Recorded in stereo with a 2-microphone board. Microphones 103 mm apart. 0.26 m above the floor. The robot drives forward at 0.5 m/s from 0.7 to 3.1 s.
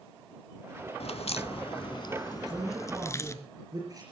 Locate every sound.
1.0 s a crack: 70° left (ahead or behind), 0.6 m; by 3.3 s 30° left (ahead or behind), 1.1 m
2.3 s a man speaking: 40° right (ahead or behind), 4 m; by 4.0 s 35° right (ahead or behind), 4.5 m